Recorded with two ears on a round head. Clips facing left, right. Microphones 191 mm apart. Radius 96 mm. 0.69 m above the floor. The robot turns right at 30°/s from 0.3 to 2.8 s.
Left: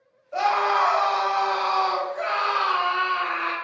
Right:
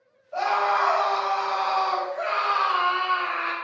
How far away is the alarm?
No alarm in this recording.